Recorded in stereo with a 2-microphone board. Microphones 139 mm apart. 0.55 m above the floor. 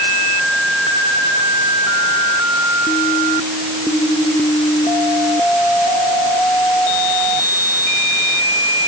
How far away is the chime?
No chime in this recording.